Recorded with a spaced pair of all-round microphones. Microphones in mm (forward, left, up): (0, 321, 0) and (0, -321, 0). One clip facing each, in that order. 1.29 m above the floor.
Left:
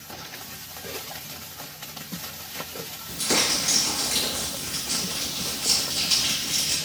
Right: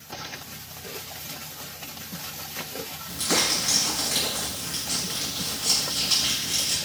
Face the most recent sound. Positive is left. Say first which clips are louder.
# left 1 dB
turn(degrees=55)  # may be behind; listen again after turning